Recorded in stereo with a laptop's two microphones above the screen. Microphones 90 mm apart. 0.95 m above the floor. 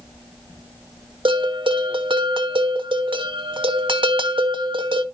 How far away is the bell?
About 1.2 m.